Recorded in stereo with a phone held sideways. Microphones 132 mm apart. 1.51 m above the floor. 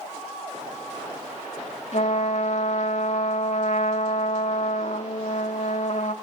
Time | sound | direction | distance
1.9 | a trumpet | 65° left (ahead or behind) | 1.8 m